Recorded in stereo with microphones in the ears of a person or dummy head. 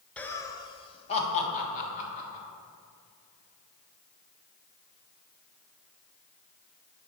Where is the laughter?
5° left (ahead or behind), 0.7 m; by 2.4 s 40° left (ahead or behind), 2.5 m.